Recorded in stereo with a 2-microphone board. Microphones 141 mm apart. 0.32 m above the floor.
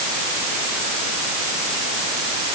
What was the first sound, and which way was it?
Only background noise.